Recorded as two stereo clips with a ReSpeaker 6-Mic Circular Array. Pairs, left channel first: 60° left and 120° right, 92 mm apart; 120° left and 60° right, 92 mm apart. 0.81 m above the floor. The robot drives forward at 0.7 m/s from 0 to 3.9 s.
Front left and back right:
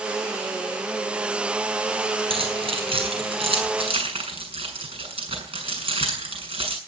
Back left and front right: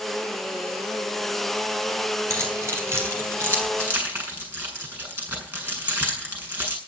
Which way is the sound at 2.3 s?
120° right.